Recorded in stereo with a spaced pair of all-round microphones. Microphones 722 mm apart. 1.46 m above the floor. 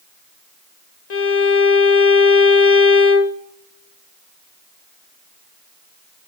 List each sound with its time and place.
1.1 s a violin: 65° left (ahead or behind), 1.2 m